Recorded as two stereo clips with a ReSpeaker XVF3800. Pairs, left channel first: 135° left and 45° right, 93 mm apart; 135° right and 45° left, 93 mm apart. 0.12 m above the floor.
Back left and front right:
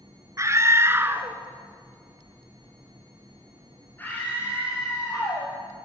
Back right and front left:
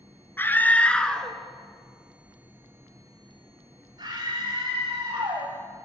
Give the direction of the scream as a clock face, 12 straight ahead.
3 o'clock.